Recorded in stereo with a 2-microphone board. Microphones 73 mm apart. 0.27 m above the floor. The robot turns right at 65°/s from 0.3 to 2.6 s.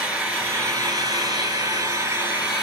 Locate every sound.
0.0 s an engine running: 160° right, 2.5 m; by 2.6 s 15° right, 2.5 m